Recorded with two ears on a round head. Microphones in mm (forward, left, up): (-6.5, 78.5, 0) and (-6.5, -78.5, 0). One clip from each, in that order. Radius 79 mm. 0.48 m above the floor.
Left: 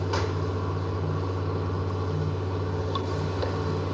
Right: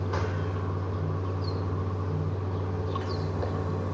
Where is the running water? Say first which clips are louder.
Left 3 dB; 80° left, 2.5 m.